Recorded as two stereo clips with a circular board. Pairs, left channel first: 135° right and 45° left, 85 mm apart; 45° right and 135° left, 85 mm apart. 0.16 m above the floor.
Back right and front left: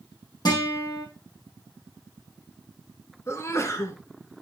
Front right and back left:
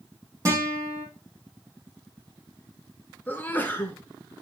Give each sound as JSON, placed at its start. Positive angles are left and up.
{"t": 0.5, "sound": "a guitar", "azimuth_deg": -175, "distance_m": 4.5}
{"t": 3.3, "sound": "a sneeze", "azimuth_deg": -100, "distance_m": 1.3}